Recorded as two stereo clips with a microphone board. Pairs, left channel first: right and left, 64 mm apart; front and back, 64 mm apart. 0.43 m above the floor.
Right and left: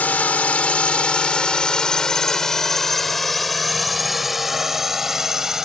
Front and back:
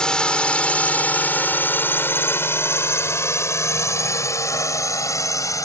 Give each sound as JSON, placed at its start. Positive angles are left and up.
{"t": 0.0, "sound": "a drone", "azimuth_deg": -60}